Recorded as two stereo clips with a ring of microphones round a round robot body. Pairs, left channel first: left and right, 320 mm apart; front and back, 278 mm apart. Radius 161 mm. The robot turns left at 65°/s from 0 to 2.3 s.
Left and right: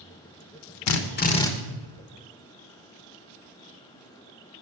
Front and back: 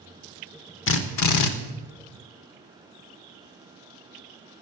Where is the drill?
50° left, 1.0 m; by 1.5 s 10° left, 1.0 m.